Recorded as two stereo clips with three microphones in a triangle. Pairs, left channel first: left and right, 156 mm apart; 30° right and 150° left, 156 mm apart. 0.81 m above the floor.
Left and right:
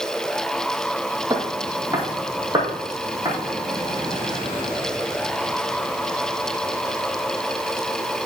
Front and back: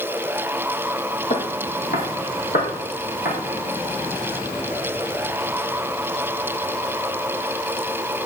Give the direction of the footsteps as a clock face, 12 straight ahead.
1 o'clock.